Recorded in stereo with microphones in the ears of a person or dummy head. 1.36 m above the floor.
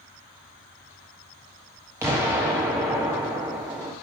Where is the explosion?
10° right (ahead or behind), 1.3 m.